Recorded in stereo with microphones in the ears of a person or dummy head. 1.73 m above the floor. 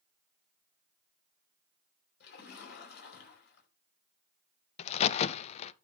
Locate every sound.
2.2 s a splash: 65° left (ahead or behind), 4.5 m
4.8 s a crack: 45° left (ahead or behind), 0.5 m